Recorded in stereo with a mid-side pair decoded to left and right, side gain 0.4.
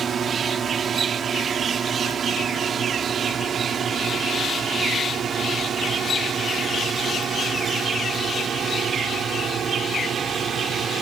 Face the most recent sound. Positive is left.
turn(degrees=-65)